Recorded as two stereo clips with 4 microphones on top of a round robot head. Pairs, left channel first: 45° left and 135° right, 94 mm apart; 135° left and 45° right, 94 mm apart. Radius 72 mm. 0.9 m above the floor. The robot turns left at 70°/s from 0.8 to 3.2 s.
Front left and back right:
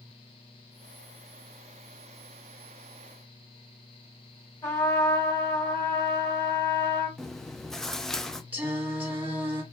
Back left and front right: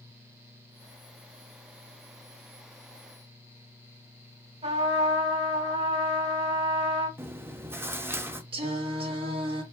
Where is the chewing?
30° right, 0.7 m.